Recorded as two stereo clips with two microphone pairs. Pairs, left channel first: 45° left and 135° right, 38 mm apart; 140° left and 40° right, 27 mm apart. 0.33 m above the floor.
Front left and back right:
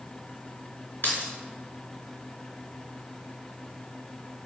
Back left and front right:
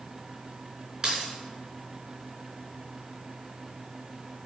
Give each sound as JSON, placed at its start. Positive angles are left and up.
{"t": 1.0, "sound": "keys jangling", "azimuth_deg": 15, "distance_m": 3.5}